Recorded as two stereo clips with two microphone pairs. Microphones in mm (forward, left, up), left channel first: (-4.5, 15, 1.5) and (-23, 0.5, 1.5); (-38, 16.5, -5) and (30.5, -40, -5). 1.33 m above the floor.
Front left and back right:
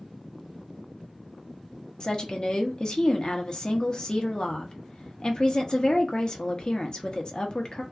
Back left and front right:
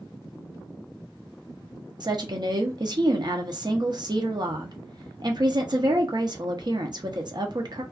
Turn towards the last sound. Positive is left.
turn(degrees=-10)